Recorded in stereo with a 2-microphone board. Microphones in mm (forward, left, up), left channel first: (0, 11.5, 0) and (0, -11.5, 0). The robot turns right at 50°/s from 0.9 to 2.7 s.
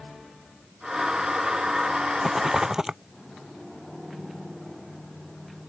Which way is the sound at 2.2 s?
5° right (ahead or behind).